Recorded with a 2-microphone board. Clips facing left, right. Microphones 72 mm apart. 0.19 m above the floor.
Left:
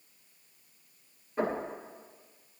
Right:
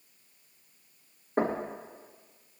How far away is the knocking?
About 3.5 m.